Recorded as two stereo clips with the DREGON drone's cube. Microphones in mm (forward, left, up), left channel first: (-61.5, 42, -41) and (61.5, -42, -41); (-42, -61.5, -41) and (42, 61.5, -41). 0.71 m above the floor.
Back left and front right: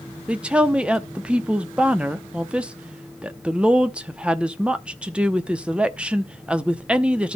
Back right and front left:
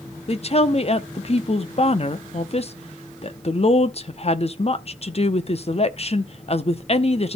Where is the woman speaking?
115° right, 0.7 m.